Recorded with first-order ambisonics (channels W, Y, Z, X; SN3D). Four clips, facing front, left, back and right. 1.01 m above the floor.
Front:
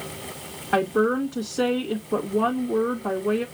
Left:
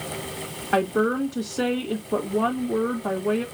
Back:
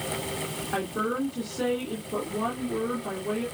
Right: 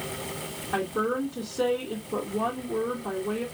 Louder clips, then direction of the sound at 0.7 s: Left 6 dB, front 8 dB; 50° left.